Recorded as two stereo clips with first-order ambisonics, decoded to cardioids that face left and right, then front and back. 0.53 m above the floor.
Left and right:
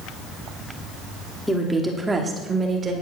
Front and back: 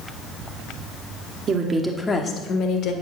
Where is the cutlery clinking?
No cutlery clinking in this recording.